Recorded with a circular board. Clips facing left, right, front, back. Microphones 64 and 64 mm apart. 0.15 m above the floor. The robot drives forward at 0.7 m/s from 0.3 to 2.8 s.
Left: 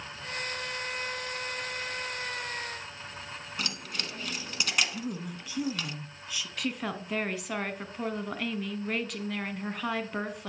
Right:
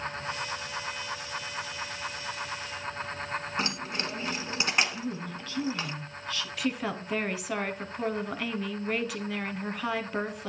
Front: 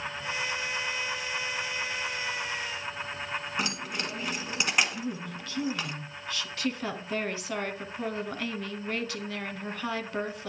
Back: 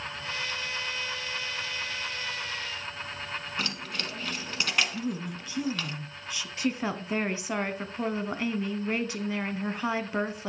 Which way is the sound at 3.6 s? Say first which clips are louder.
Right 5 dB, front 2 dB; 60° right.